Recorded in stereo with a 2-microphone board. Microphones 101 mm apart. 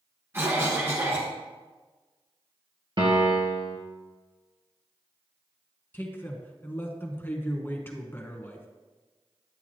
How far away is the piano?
About 1.8 m.